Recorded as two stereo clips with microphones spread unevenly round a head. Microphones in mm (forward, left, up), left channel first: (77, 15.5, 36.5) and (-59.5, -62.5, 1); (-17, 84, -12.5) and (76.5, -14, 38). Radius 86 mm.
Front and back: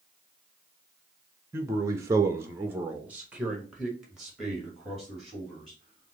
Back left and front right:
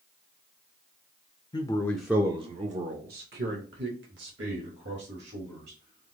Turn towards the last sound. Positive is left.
turn(degrees=-60)